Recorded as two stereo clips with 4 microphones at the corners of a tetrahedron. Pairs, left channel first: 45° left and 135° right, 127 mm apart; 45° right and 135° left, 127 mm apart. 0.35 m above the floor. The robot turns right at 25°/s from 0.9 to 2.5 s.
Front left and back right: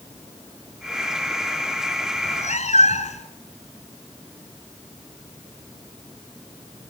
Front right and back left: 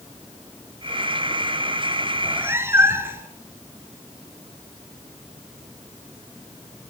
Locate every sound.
2.1 s a cat meowing: 55° left, 2 m; by 3.3 s 65° left, 2 m